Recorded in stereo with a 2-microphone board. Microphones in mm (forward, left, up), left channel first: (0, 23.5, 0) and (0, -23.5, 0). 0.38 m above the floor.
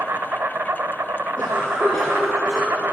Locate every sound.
0.0 s an insect: 60° right (ahead or behind), 0.7 m
1.4 s a cough: 15° left (ahead or behind), 4.5 m